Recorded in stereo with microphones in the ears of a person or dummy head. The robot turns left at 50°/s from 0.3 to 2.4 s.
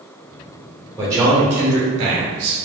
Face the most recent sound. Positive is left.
turn(degrees=-55)